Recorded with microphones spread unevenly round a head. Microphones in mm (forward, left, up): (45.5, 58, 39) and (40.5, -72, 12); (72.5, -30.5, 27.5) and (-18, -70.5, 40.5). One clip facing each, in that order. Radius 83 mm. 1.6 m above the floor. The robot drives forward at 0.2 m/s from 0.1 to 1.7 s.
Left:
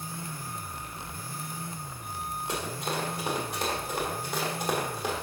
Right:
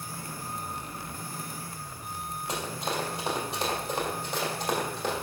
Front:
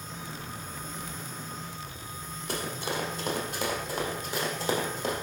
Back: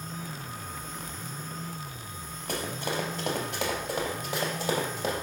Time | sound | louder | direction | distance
2.5 | running footsteps | right 1 dB, back 1 dB | straight behind | 2.5 m